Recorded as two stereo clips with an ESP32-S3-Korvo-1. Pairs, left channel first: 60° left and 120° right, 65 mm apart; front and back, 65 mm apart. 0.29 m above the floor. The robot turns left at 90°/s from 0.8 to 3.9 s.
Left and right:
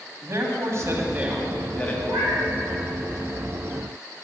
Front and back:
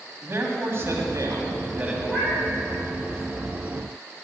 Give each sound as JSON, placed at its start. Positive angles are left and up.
{"t": 0.2, "sound": "a man speaking", "azimuth_deg": -145, "distance_m": 1.9}
{"t": 2.0, "sound": "a cat meowing", "azimuth_deg": -85, "distance_m": 3.5}